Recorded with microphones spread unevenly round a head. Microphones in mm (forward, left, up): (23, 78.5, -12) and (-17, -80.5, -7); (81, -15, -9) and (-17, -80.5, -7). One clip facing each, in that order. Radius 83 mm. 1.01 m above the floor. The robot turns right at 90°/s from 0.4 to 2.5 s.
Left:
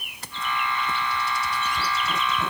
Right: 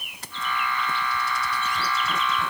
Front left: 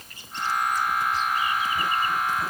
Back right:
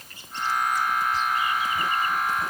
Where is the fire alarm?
I don't hear a fire alarm.